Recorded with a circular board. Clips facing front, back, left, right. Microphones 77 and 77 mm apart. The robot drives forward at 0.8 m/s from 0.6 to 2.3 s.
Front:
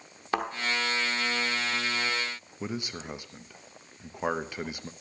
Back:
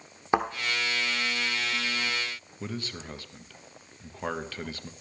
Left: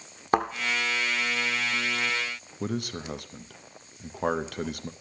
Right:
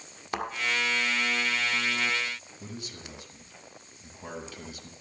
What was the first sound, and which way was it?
A thud, 115° left.